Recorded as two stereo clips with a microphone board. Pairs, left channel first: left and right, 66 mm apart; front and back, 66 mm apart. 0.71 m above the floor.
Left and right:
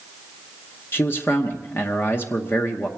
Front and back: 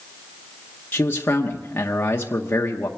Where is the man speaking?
45° left, 1.0 m.